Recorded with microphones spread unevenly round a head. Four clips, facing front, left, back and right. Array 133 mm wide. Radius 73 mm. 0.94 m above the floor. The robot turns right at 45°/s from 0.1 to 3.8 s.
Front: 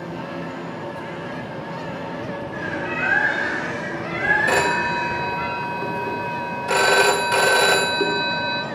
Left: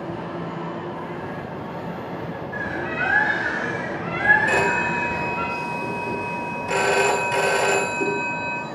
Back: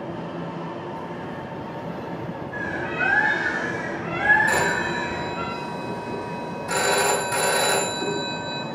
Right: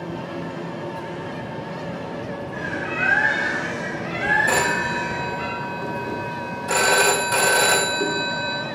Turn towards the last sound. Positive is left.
turn(degrees=-5)